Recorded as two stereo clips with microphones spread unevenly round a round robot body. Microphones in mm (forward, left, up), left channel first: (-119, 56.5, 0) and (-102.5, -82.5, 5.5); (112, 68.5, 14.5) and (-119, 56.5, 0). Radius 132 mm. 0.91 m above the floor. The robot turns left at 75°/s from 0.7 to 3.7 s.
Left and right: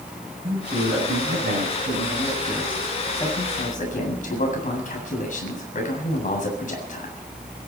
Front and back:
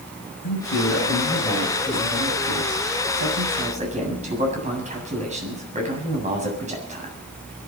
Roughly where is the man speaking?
Ahead.